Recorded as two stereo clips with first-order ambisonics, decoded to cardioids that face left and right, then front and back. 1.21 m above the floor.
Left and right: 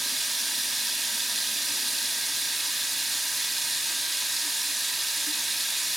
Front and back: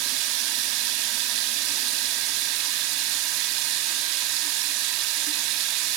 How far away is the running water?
About 1.4 m.